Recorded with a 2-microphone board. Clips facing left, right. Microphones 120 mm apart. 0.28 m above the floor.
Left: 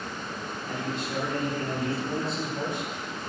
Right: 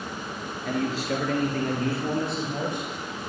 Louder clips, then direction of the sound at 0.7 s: Right 7 dB; 75° right (ahead or behind).